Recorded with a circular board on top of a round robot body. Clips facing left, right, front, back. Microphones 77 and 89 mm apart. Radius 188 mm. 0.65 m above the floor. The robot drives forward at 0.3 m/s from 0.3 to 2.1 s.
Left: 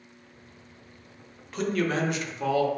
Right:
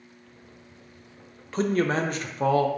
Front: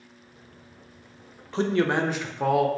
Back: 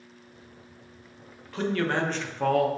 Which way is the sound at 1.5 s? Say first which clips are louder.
Right 3 dB, front 3 dB; 50° right.